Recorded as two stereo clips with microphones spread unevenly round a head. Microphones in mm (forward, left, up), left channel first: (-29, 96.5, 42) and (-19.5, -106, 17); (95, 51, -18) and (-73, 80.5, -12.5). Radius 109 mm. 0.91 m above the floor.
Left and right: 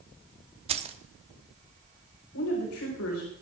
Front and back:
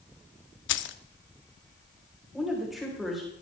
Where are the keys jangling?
25° right, 0.9 m.